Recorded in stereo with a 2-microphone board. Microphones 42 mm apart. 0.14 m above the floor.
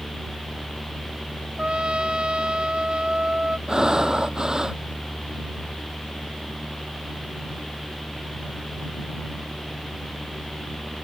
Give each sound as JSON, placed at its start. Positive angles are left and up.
{"t": 1.6, "sound": "a trumpet", "side_deg": -25}
{"t": 3.7, "sound": "breathing", "side_deg": -15}